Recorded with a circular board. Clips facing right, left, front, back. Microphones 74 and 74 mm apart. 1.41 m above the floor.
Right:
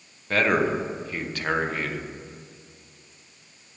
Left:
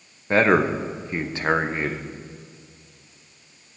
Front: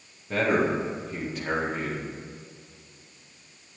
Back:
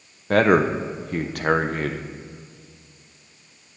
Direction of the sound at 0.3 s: 155° left.